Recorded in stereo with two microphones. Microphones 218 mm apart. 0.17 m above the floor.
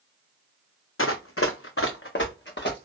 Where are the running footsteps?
75° left (ahead or behind), 0.5 m; by 2.9 s 50° left (ahead or behind), 1.3 m.